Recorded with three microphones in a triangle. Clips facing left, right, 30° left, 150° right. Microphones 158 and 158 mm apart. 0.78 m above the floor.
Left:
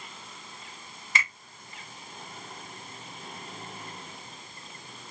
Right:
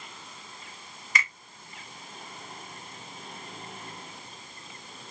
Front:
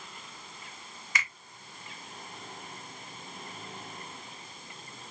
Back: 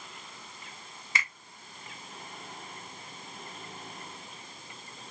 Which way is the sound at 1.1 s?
150° left.